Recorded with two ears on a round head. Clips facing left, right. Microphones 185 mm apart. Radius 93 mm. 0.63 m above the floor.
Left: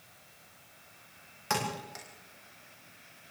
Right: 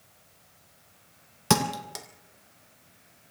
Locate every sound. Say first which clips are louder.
1.5 s a thud: right 9 dB; 70° right (ahead or behind), 1.7 m